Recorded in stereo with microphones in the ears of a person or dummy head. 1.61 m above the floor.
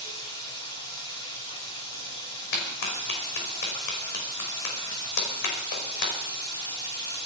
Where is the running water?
30° left (ahead or behind), 7.5 m.